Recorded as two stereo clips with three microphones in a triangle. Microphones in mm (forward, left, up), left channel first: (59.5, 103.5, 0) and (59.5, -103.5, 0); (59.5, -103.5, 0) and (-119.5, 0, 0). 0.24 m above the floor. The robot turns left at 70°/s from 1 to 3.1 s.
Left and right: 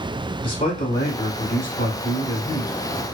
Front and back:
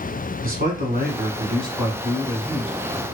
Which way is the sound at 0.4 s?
140° left.